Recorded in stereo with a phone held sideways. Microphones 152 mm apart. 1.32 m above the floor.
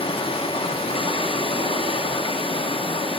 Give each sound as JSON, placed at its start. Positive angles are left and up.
{"t": 0.0, "sound": "running water", "side_deg": 35, "distance_m": 0.7}